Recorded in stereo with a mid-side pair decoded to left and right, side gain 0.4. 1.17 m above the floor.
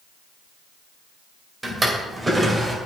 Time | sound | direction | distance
1.6 | a drawer | 20° right | 2.5 m